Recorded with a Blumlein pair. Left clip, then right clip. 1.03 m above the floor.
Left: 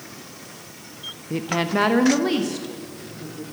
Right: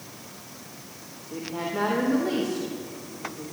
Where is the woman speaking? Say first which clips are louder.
Left 7 dB; 55° left, 0.7 m; by 3.4 s 20° left, 2 m.